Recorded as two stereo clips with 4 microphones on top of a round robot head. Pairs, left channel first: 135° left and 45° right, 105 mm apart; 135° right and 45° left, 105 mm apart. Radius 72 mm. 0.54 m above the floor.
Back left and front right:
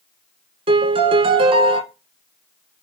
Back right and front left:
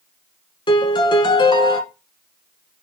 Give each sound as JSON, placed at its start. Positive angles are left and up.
{"t": 0.7, "sound": "a piano", "azimuth_deg": -90, "distance_m": 1.1}